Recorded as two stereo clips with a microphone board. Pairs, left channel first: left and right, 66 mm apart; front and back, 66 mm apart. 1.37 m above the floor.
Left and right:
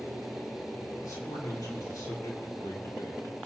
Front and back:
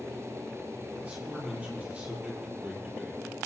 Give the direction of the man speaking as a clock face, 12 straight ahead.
8 o'clock.